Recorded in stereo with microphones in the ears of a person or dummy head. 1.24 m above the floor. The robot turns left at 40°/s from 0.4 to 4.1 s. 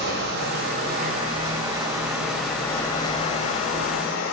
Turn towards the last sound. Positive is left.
turn(degrees=110)